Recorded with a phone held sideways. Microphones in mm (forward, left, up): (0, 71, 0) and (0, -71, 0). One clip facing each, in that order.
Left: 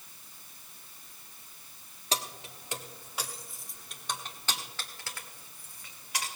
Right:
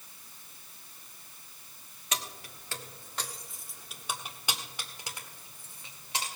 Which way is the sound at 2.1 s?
35° left (ahead or behind).